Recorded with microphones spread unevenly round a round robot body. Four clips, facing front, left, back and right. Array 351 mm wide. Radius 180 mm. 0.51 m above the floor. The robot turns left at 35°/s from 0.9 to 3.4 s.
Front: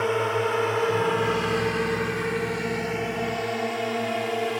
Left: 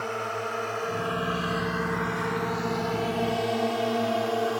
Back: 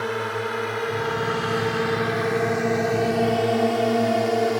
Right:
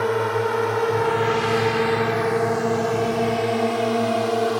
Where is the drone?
75° right; by 4.6 s 135° right.